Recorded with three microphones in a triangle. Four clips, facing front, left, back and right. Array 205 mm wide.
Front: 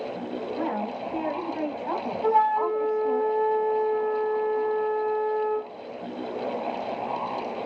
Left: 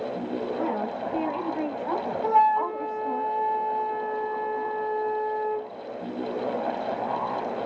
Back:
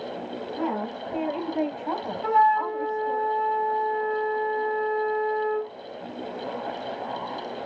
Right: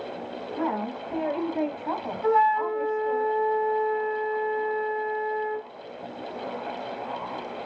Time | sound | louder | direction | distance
0.6 | a woman speaking | right 4 dB, back 2 dB | 115° right | 1.8 m
2.2 | a flute | even, back 1 dB | 50° left | 0.8 m